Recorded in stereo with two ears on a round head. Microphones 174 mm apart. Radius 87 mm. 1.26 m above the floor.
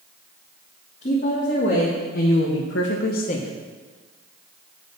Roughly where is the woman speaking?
Left.